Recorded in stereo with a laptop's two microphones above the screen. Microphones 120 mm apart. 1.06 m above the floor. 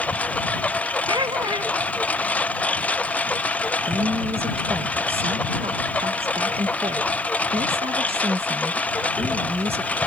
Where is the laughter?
40° right (ahead or behind).